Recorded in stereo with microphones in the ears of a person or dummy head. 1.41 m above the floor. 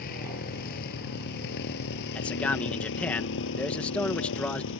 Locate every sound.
0.0 s a motorcycle: 50° left (ahead or behind); by 4.8 s 75° left (ahead or behind)
2.1 s a man speaking: 5° left (ahead or behind)